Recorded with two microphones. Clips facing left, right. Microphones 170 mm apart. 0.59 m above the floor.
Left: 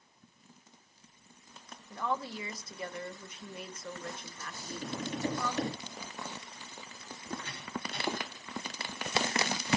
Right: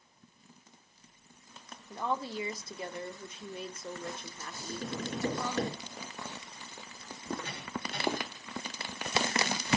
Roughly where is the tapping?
Right.